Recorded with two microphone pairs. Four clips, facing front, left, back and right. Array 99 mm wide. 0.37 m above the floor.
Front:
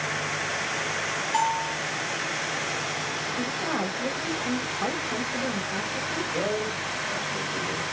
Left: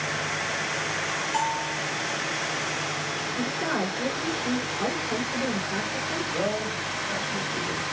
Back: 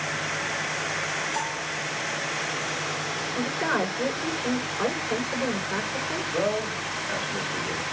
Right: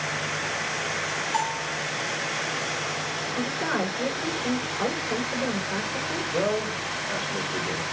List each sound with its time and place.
1.3 s a bell: 15° right, 3.5 m
3.4 s a woman speaking: 150° right, 5 m
6.3 s a man speaking: 125° right, 1.4 m